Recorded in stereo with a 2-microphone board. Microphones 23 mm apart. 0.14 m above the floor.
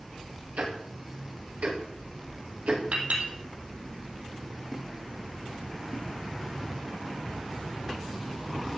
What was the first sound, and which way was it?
Ticking, 80° right.